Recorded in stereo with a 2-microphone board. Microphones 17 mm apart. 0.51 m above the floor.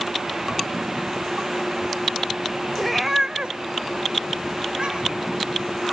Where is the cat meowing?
5° left (ahead or behind), 0.8 m; by 5.3 s 55° right (ahead or behind), 3 m.